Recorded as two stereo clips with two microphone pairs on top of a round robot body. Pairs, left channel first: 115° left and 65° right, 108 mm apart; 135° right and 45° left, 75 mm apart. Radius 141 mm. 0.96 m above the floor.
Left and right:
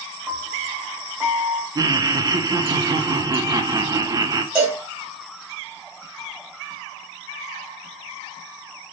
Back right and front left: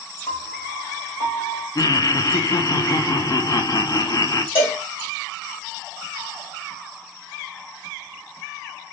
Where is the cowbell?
135° right, 2 m.